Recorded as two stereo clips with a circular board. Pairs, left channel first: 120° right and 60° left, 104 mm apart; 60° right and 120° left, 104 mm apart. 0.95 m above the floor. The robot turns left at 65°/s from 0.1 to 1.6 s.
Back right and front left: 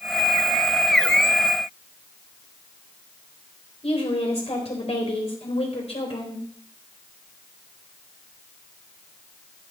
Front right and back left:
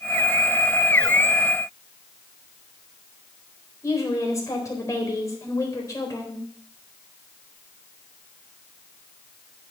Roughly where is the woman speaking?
Behind right.